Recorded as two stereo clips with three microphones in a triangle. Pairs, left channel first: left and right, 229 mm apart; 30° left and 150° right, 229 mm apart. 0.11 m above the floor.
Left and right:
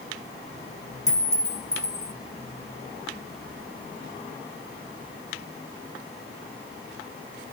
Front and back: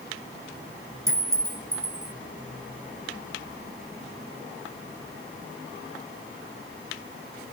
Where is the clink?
140° left, 1.0 m.